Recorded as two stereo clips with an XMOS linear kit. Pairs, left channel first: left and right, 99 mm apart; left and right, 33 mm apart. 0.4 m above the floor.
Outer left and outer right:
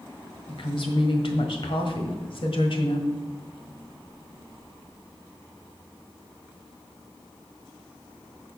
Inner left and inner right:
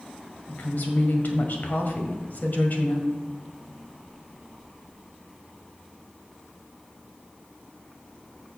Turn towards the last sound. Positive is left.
turn(degrees=60)  # may be behind; listen again after turning